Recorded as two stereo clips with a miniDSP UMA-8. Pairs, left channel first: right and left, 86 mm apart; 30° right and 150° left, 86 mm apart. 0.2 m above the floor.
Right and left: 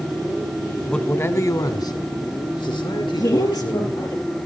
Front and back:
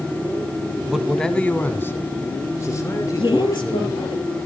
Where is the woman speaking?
45° right, 5.5 m.